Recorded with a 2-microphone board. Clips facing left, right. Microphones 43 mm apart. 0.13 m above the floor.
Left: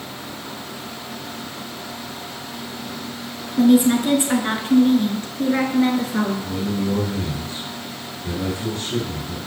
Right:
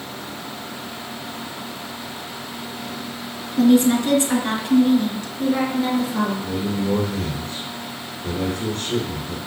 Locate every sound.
3.6 s a woman speaking: 10° left (ahead or behind), 1.7 m; by 6.3 s 50° left (ahead or behind), 2.5 m
6.4 s a man speaking: 45° right (ahead or behind), 2.5 m